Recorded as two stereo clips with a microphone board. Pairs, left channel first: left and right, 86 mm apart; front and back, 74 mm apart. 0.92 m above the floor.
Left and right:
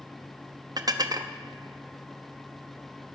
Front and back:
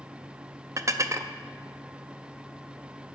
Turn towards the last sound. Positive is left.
turn(degrees=-130)